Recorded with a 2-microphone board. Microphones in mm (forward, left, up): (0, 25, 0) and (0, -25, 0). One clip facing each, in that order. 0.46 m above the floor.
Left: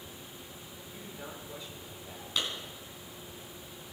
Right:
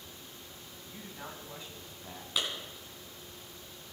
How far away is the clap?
About 3.5 m.